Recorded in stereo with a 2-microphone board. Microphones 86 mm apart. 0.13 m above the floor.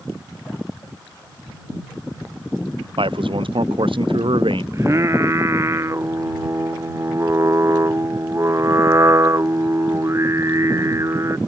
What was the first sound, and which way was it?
A man speaking, 85° right.